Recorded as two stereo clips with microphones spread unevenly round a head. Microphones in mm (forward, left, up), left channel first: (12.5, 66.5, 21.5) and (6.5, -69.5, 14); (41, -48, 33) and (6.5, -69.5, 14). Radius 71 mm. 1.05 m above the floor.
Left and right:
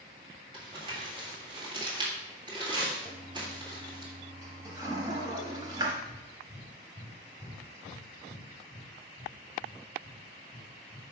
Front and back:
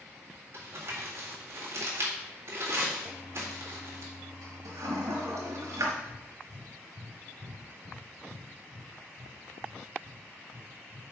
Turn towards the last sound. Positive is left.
turn(degrees=150)